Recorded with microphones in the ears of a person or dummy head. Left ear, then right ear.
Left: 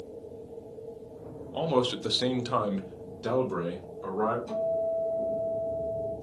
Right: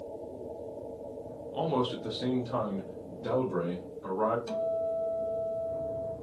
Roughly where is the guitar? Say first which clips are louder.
Left 2 dB; right.